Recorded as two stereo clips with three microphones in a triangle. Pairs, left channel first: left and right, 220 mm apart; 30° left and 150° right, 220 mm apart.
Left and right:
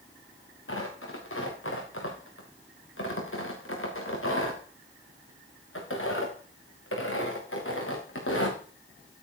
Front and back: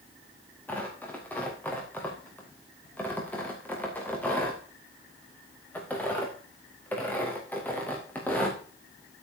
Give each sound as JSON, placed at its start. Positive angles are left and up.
{"t": 0.7, "sound": "tearing paper", "azimuth_deg": 110, "distance_m": 4.0}